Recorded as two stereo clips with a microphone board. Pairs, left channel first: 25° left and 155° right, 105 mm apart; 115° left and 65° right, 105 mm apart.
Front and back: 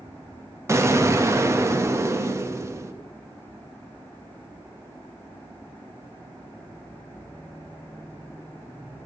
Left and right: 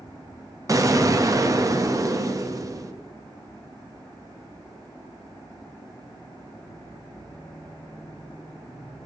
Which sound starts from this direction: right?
An explosion, at 0.7 s.